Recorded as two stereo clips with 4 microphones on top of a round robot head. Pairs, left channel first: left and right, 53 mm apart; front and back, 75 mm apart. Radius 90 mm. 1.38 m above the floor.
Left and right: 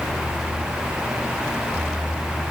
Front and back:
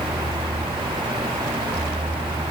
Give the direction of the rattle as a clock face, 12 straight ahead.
No rattle in this recording.